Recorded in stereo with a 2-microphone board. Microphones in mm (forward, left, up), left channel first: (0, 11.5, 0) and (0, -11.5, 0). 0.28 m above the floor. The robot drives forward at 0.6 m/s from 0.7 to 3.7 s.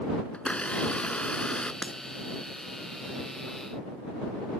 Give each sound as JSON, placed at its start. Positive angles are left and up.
{"t": 0.3, "sound": "a blender", "side_deg": 70}
{"t": 1.8, "sound": "breaking glass", "side_deg": 55}